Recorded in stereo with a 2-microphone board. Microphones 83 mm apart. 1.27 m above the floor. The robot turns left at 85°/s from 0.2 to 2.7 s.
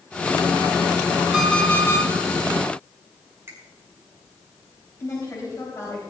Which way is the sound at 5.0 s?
40° left (ahead or behind).